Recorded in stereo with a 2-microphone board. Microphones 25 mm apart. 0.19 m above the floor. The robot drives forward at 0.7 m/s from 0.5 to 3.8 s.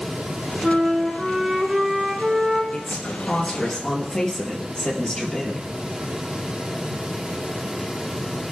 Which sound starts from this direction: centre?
A flute, at 0.6 s.